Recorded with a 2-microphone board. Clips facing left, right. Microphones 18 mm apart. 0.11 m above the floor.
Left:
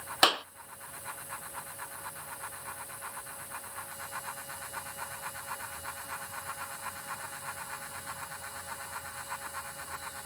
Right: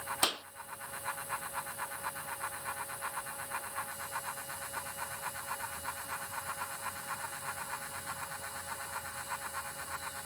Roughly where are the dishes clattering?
I don't hear dishes clattering.